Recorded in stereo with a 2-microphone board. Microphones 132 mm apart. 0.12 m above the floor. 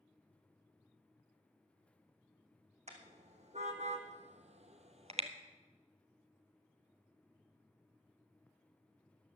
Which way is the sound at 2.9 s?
60° right (ahead or behind).